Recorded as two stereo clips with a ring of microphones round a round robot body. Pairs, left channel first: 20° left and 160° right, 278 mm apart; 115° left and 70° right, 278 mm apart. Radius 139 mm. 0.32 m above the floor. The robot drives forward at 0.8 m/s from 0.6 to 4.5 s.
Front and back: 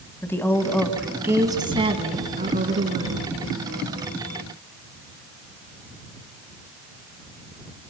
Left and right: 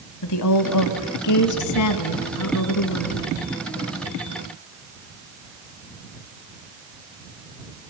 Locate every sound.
0.2 s a woman speaking: 105° left, 1.7 m; by 3.2 s 150° left, 3 m